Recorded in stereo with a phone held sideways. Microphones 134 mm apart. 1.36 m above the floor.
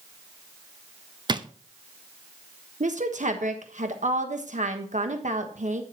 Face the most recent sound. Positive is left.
turn(degrees=-65)  # may be behind; listen again after turning